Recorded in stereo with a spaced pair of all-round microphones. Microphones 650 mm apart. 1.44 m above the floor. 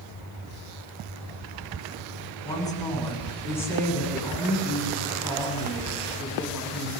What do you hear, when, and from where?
2.5 s a woman speaking: 5° left (ahead or behind), 9.5 m; by 6.9 s centre (ahead or behind), 15 m